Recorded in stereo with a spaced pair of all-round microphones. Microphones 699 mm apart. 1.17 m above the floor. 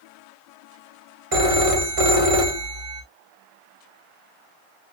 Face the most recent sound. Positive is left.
turn(degrees=-55)  # may be behind; listen again after turning